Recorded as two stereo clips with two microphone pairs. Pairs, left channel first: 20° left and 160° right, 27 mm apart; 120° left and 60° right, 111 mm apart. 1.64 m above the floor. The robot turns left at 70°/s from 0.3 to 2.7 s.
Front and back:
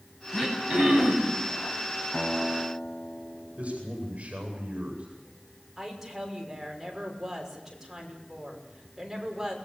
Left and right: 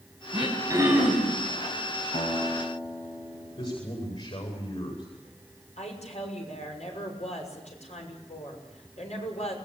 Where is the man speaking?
150° left, 9 m.